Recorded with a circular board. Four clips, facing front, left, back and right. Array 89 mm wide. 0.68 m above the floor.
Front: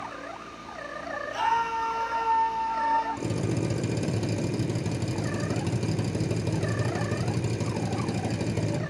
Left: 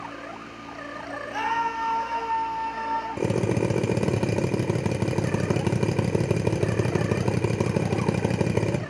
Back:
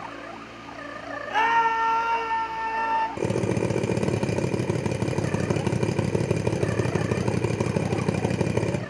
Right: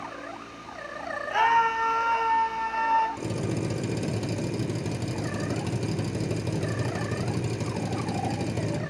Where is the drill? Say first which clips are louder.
Left 6 dB, back 4 dB; 130° left, 1.5 m.